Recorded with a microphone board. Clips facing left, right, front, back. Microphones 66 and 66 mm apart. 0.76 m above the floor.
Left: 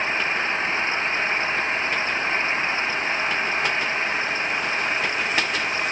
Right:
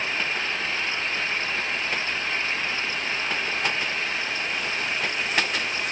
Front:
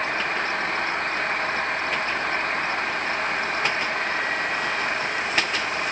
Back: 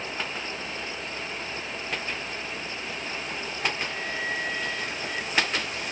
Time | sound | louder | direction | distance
0.0 | an engine running | left 4 dB, front 8 dB | 30° left | ?